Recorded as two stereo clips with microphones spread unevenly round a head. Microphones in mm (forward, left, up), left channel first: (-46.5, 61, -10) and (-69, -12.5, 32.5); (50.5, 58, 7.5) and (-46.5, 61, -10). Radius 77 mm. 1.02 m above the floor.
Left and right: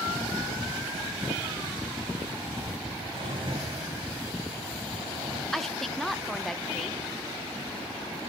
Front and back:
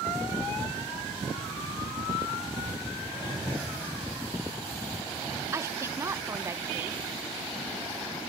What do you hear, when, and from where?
3.1 s a drawer: 85° right, 3 m
5.5 s a woman speaking: 135° left, 0.8 m